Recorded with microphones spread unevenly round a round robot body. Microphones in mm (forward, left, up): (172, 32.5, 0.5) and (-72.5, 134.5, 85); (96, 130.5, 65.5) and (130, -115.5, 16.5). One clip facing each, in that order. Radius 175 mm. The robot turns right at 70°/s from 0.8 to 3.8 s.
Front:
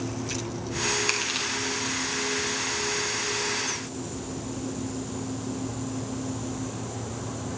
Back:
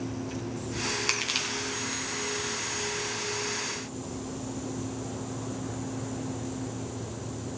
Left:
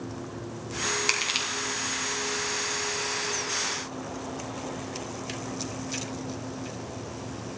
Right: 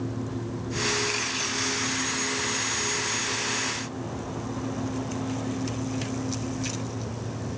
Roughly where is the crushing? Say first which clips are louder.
Front 2 dB, right 4 dB; left.